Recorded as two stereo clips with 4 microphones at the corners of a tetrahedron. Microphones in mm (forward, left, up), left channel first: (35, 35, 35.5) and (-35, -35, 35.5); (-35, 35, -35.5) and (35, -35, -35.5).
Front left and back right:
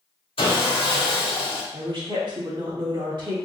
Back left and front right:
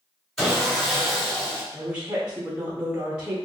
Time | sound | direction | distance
0.4 | sawing | 45° left | 1.2 m
1.7 | a woman speaking | 120° right | 1.0 m